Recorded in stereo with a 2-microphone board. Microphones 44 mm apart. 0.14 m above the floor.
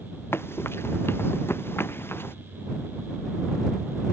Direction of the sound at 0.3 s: 65° left (ahead or behind).